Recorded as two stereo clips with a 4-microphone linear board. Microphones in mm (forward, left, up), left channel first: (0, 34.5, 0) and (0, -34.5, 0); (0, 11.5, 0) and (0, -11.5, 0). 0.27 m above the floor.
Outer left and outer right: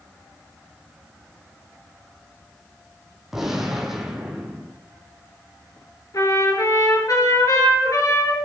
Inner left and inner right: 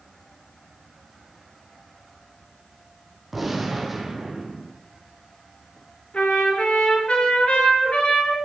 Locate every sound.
3.3 s a gunshot: 5° right (ahead or behind), 2.5 m
6.1 s a trumpet: 60° left (ahead or behind), 5 m